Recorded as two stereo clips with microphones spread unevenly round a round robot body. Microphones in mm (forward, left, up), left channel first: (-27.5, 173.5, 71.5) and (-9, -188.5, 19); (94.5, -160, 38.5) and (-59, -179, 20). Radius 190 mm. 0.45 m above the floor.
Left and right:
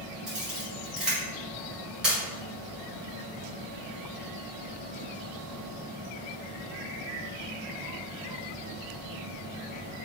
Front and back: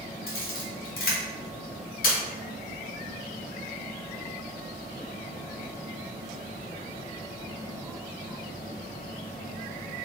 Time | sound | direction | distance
0.3 | a camera shutter | 5° right | 1.7 m